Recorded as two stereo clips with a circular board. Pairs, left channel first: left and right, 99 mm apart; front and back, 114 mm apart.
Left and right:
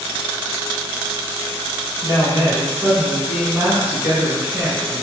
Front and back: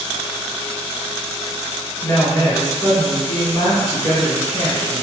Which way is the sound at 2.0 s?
30° right.